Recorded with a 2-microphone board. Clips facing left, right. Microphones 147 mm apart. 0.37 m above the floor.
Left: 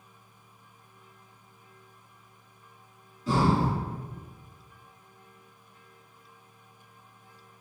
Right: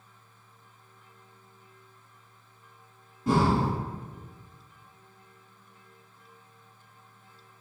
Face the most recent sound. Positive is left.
turn(degrees=-60)  # may be behind; listen again after turning